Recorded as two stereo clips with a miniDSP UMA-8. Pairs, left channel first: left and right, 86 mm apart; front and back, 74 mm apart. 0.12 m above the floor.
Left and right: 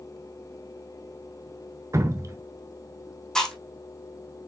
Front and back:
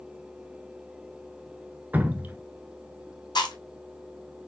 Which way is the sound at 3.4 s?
5° left.